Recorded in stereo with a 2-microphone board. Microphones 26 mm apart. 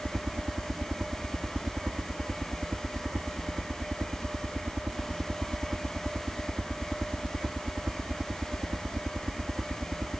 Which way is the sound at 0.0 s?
70° right (ahead or behind).